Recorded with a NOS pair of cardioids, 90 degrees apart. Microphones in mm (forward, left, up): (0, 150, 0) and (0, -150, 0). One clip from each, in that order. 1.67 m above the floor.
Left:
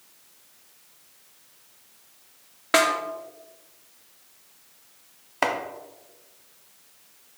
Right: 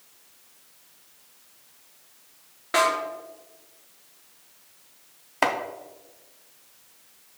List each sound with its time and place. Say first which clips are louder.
2.7 s a snare drum: left 1 dB; 45° left, 1.2 m
5.4 s chopping: right 1 dB; 5° right, 0.8 m